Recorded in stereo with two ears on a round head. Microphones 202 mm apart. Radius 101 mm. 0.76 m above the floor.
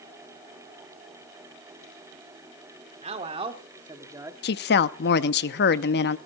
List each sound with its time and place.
3.0 s a man speaking: 30° right (ahead or behind), 2 m; by 4.3 s 10° right (ahead or behind), 1.5 m
4.4 s a woman speaking: 50° left (ahead or behind), 0.8 m